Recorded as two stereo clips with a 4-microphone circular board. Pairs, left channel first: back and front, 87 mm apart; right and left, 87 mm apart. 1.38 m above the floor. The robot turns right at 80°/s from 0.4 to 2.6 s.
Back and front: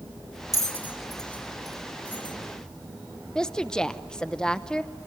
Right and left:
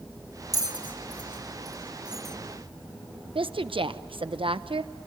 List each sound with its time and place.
0.5 s a bell: 45° left, 1.8 m; by 2.4 s 170° right, 1.8 m
3.4 s a woman speaking: 100° left, 0.8 m